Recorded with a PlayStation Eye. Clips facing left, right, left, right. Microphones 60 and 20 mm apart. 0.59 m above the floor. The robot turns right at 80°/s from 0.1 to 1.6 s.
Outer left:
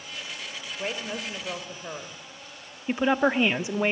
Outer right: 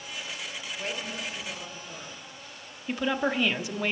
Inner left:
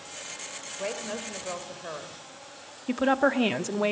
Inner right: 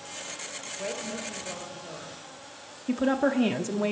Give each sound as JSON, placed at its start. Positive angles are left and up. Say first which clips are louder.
{"t": 0.8, "sound": "a woman speaking", "louder": "outer left 3 dB, inner left 1 dB", "azimuth_deg": 20, "distance_m": 2.5}
{"t": 2.9, "sound": "a woman speaking", "louder": "outer left 5 dB, inner left 1 dB", "side_deg": 20, "distance_m": 1.0}